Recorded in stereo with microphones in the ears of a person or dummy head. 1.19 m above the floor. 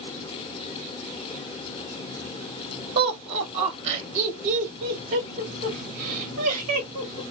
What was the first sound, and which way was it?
Laughter, 55° right (ahead or behind).